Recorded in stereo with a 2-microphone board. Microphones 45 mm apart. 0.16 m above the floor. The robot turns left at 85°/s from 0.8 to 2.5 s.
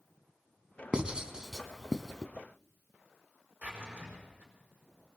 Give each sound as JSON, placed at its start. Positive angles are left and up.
{"t": 0.9, "sound": "writing", "side_deg": -25, "distance_m": 0.7}
{"t": 3.6, "sound": "a drawer", "side_deg": -45, "distance_m": 5.5}